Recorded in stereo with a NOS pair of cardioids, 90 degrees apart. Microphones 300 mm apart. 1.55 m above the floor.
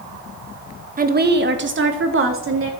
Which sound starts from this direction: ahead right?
A woman speaking, at 1.0 s.